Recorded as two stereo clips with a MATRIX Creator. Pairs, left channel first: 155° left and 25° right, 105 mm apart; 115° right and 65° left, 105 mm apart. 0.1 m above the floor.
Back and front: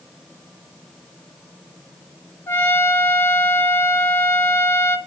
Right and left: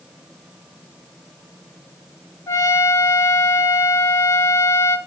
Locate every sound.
2.5 s a trumpet: 150° right, 1.7 m